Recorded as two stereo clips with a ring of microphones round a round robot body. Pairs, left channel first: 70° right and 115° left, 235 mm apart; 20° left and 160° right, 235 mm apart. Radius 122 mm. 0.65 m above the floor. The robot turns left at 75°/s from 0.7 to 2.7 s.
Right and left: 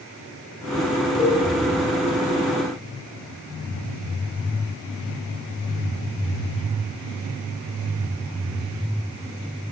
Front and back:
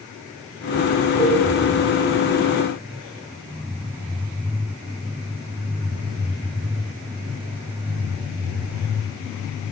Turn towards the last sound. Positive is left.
turn(degrees=145)